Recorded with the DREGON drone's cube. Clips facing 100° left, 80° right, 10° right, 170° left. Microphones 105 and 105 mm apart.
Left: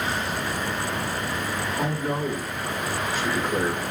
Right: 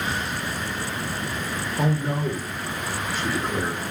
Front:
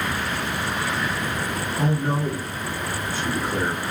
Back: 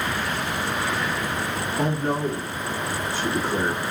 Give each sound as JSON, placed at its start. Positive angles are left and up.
{"t": 1.8, "sound": "a man speaking", "azimuth_deg": -135, "distance_m": 1.8}